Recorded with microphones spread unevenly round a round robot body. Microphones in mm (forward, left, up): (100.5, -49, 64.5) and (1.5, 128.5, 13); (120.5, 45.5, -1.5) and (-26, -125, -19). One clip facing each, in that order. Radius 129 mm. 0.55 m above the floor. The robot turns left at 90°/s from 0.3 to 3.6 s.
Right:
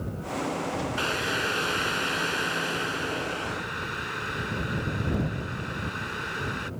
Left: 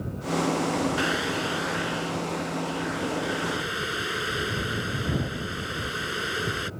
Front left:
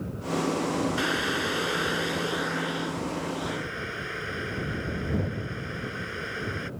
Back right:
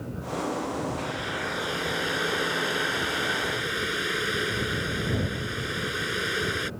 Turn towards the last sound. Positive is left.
turn(degrees=175)